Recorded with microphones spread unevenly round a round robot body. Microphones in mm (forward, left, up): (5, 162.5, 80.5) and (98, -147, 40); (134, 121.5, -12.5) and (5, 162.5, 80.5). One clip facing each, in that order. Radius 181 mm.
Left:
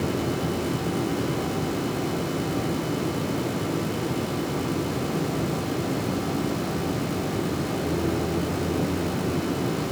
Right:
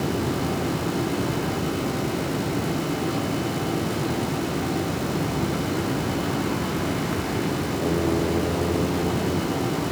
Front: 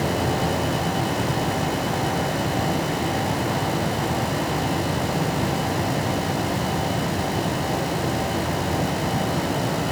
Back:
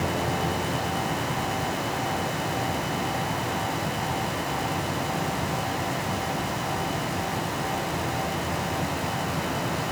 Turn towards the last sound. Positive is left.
No sound to turn to.